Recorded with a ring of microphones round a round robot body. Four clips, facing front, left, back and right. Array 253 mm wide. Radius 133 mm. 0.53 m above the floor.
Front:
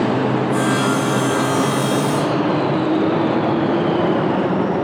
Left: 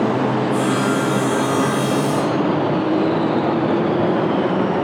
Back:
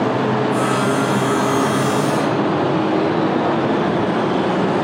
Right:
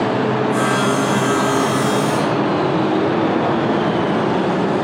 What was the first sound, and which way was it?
Sawing, 80° right.